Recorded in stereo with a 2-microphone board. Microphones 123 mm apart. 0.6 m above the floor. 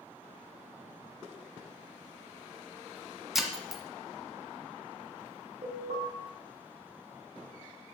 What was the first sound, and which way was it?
Breaking glass, centre (ahead or behind).